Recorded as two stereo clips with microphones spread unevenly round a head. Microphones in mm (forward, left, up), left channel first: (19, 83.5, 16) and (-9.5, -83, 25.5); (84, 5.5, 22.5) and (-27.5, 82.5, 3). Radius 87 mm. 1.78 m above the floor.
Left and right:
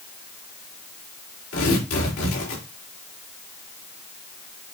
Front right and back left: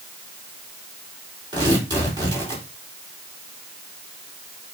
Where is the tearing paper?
85° left, 5 m.